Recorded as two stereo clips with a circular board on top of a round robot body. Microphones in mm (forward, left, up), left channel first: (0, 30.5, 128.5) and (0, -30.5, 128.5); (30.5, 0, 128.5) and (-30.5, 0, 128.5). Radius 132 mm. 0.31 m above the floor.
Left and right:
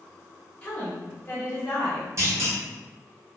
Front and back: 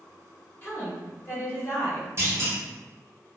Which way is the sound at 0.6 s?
35° left.